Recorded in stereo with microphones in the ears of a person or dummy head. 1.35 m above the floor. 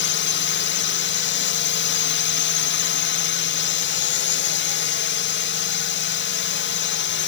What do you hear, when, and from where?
0.0 s a drone: 55° left (ahead or behind)